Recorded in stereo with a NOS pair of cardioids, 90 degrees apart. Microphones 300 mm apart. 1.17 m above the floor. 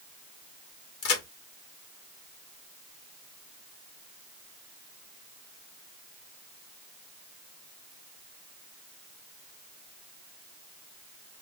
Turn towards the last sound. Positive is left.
turn(degrees=60)